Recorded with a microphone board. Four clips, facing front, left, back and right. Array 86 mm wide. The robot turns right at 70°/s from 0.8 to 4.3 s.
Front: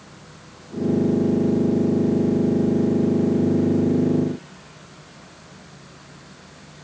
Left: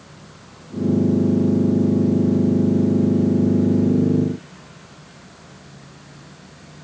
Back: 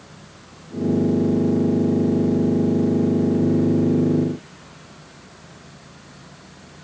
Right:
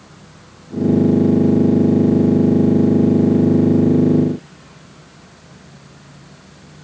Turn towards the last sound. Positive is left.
No sound to turn to.